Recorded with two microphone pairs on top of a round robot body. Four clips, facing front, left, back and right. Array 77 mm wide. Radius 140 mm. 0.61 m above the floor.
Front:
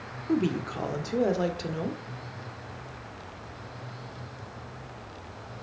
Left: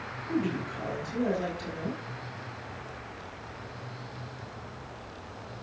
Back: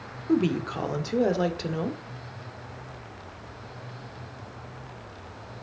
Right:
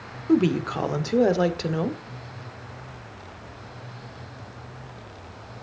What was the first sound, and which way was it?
A woman speaking, 90° right.